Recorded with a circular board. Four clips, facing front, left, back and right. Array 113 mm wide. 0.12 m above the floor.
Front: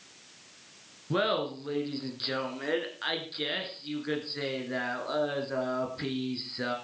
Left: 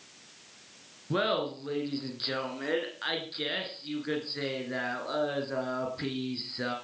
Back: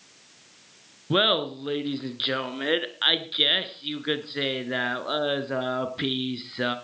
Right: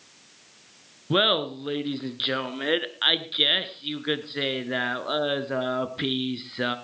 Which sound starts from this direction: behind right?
Laughter, at 1.1 s.